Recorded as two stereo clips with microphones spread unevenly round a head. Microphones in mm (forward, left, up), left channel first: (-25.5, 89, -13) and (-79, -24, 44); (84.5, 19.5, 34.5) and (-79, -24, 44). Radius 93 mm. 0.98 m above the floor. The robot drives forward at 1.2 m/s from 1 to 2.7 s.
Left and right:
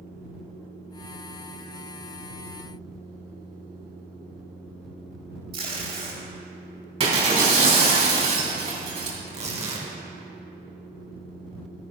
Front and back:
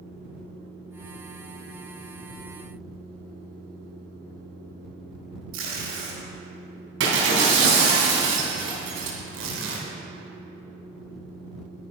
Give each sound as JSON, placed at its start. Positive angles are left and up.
{"t": 5.5, "sound": "tape being pulled", "azimuth_deg": -160, "distance_m": 4.0}
{"t": 7.0, "sound": "breaking glass", "azimuth_deg": -145, "distance_m": 2.5}
{"t": 9.2, "sound": "tearing paper", "azimuth_deg": -150, "distance_m": 2.5}